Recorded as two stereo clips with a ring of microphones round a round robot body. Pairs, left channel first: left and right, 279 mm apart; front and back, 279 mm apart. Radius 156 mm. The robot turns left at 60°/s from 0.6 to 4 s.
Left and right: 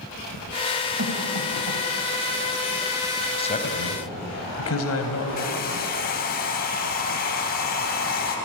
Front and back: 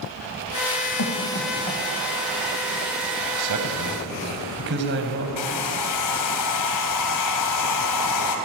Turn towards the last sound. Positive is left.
turn(degrees=30)